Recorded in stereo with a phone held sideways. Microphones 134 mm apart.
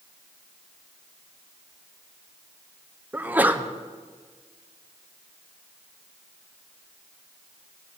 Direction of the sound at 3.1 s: 15° right (ahead or behind).